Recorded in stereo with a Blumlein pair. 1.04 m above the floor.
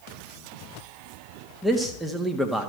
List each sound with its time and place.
1.6 s a man speaking: 5° right, 1.6 m